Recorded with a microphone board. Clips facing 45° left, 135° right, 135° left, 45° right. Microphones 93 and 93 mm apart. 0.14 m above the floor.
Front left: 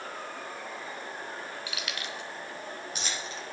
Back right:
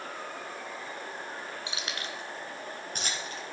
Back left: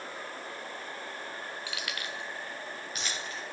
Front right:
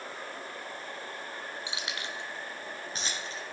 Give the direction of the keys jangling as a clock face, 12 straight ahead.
3 o'clock.